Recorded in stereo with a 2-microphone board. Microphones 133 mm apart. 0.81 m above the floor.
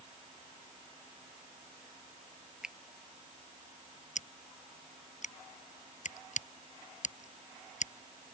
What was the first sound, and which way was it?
A finger snap, 5° right (ahead or behind).